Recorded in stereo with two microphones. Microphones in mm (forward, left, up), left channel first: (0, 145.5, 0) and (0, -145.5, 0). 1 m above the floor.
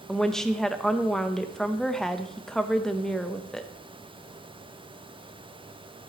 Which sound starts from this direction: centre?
A woman speaking, at 0.1 s.